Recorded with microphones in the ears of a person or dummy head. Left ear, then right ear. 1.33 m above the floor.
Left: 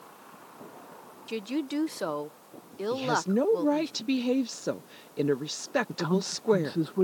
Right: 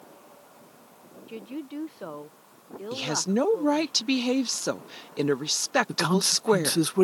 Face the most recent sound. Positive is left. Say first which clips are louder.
# right 6 dB
turn(degrees=-75)  # may be behind; listen again after turning